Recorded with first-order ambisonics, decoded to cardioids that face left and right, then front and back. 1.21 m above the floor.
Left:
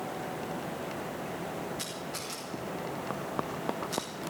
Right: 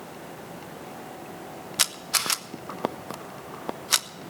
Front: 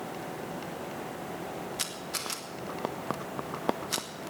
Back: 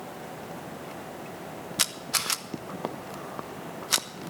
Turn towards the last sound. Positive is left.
turn(degrees=-120)